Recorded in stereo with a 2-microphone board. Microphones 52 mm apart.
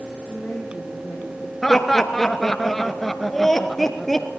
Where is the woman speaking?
35° left (ahead or behind), 6.5 m; by 1.5 s 50° left (ahead or behind), 6.5 m.